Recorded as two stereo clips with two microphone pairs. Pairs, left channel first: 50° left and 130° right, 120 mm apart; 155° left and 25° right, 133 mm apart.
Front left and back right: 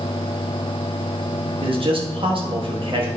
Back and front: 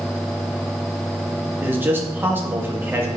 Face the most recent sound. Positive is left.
turn(degrees=-95)